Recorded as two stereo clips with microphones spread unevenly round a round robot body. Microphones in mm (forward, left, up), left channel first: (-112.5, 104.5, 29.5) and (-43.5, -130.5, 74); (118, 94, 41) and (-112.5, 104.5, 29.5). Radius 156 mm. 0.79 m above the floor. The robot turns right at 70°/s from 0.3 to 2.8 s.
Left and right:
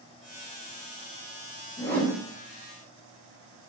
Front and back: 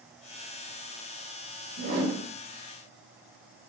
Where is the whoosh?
170° left, 1.0 m; by 2.2 s 165° right, 1.0 m.